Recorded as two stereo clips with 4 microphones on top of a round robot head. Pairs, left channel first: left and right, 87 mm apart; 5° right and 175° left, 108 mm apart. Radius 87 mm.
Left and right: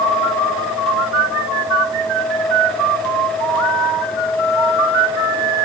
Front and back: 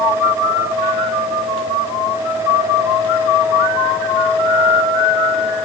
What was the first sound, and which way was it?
Only background noise.